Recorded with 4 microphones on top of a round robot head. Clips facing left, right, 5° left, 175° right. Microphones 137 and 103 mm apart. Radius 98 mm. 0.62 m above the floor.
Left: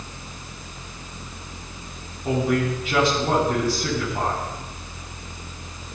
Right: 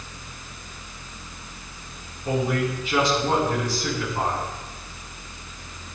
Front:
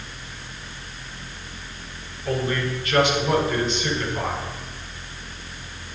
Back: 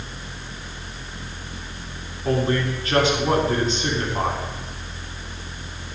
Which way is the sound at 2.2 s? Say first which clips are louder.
Left 2 dB, back 3 dB; 135° left.